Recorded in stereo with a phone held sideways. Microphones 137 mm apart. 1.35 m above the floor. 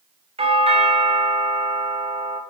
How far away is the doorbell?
About 0.7 m.